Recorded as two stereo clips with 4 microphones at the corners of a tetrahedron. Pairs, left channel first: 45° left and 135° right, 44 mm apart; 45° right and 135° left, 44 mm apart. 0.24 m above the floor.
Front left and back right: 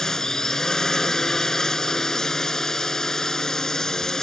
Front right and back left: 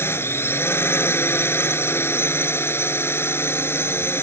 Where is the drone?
30° right.